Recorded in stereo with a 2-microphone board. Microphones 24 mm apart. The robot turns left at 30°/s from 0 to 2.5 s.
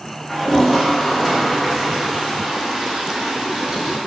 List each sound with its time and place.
0.3 s a toilet flushing: 15° left, 0.5 m; by 4.0 s 50° right, 0.5 m